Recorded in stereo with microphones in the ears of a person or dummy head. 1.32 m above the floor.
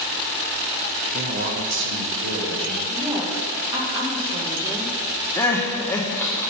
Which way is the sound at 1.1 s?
35° right (ahead or behind).